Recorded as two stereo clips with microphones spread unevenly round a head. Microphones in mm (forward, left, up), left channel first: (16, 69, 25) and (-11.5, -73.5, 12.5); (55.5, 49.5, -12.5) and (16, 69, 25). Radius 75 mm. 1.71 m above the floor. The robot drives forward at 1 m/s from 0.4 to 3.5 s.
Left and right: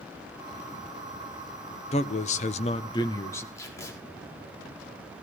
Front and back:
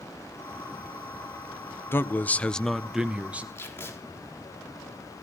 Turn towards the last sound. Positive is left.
turn(degrees=5)